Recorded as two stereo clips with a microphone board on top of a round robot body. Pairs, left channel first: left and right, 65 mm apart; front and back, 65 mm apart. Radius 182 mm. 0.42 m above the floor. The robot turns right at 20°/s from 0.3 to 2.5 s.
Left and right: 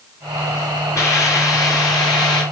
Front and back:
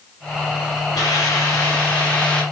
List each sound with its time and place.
0.9 s a hiss: 40° left, 3.5 m; by 2.4 s 70° left, 3.5 m